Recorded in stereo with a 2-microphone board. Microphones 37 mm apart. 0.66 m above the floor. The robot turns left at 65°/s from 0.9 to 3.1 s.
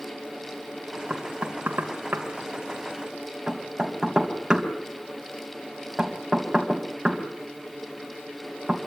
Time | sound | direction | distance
1.1 | knocking | 35° right (ahead or behind) | 3.5 m